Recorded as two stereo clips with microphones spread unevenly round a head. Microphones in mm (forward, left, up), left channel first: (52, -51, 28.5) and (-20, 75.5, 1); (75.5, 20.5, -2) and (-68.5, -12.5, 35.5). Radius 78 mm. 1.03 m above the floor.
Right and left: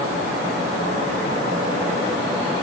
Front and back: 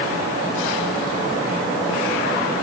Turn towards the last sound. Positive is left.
No sound to turn to.